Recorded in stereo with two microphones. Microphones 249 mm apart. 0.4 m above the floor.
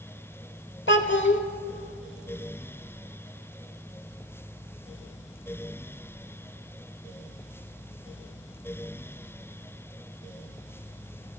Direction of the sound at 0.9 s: 50° left (ahead or behind).